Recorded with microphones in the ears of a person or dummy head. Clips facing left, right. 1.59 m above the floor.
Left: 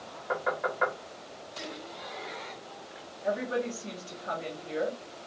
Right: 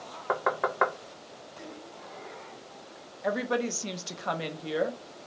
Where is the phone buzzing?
No phone buzzing in this recording.